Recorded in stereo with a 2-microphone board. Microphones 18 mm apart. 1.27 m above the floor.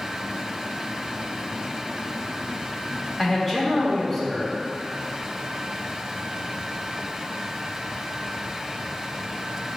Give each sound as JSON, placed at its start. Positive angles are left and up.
{"t": 3.2, "sound": "a man speaking", "side_deg": 0, "distance_m": 0.9}